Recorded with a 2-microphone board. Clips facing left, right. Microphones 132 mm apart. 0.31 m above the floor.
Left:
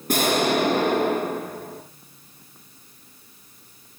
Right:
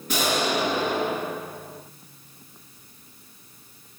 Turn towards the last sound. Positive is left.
turn(degrees=50)  # may be behind; listen again after turning